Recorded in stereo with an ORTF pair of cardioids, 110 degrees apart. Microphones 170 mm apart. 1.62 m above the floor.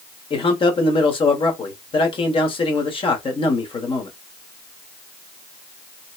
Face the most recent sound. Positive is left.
turn(degrees=30)